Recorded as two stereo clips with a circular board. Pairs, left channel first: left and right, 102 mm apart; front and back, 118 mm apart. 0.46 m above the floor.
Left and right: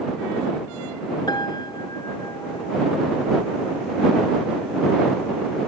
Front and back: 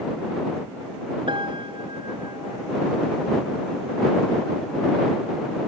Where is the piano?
135° left.